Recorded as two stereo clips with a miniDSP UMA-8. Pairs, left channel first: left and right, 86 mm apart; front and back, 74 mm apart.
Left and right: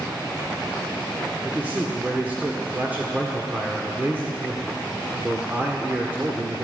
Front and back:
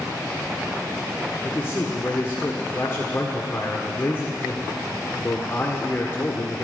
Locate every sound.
1.4 s a man speaking: 30° right, 1.6 m